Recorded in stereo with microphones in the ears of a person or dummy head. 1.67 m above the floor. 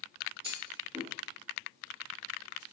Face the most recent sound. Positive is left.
turn(degrees=-30)  # may be behind; listen again after turning